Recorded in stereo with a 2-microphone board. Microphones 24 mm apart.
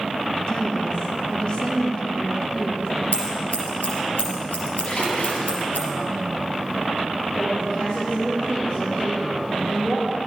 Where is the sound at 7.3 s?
50° left (ahead or behind), 4 m.